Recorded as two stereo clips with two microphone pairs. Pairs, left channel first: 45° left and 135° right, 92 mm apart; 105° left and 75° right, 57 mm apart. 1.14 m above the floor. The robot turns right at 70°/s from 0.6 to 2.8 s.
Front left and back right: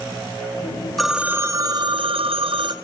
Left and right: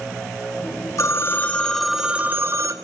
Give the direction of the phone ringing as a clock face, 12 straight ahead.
8 o'clock.